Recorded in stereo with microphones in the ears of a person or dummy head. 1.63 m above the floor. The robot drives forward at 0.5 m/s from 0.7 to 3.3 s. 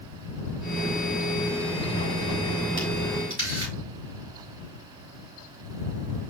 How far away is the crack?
About 1.9 m.